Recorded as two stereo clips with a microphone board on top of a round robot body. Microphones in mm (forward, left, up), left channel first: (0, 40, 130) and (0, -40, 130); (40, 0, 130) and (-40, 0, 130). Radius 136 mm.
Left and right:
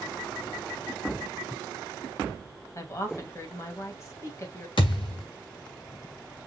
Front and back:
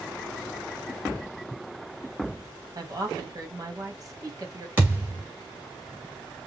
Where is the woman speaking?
140° left, 2.5 m.